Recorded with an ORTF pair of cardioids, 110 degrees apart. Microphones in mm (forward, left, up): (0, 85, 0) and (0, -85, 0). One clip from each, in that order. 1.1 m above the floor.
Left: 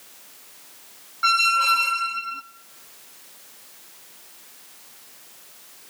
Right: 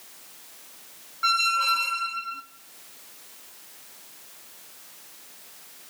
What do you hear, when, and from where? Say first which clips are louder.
1.2 s a squeak: left 4 dB; 15° left, 0.8 m